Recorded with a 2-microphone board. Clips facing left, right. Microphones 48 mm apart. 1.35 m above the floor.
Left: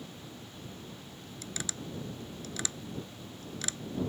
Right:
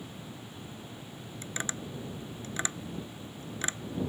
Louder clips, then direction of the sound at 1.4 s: Right 3 dB; 30° right (ahead or behind).